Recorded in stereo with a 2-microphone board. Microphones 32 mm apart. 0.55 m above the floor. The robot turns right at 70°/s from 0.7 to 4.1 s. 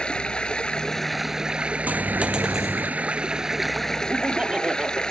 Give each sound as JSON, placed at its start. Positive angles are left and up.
{"t": 0.0, "sound": "running water", "azimuth_deg": 150}
{"t": 1.9, "sound": "a dropped coin", "azimuth_deg": -65}
{"t": 4.1, "sound": "laughter", "side_deg": -35}